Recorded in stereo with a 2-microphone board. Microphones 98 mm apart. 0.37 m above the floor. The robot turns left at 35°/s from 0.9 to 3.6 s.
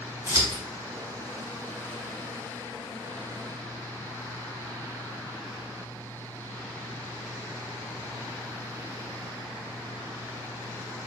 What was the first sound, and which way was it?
Scissors, 35° right (ahead or behind).